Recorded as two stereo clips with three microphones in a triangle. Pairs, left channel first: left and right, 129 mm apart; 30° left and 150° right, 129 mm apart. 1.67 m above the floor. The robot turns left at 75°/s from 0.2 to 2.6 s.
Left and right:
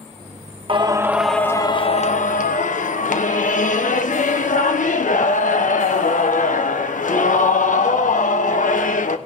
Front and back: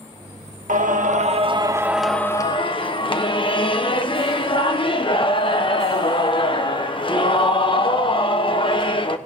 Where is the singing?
135° right, 1.2 m; by 9.2 s 80° left, 1.2 m.